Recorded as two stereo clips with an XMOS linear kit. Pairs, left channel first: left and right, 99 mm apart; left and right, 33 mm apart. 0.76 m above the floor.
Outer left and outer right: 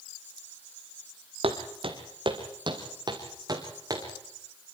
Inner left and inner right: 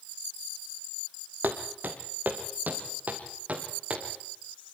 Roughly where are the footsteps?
Right.